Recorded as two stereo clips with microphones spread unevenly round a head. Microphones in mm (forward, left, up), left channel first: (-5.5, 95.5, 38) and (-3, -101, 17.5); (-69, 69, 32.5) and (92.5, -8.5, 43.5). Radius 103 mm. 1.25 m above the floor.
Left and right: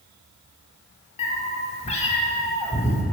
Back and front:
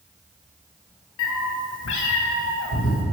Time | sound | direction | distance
1.2 | a cat meowing | 145° left | 1.4 m